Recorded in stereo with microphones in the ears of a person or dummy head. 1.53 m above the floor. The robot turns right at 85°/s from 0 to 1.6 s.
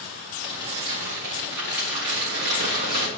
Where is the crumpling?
170° left, 3.5 m; by 3.1 s 85° right, 3.5 m.